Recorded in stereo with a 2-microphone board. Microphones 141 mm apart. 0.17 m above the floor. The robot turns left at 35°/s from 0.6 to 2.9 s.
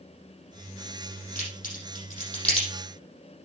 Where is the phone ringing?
I don't hear a phone ringing.